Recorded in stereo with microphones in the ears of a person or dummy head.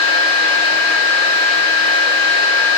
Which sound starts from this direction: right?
A fan, at 0.0 s.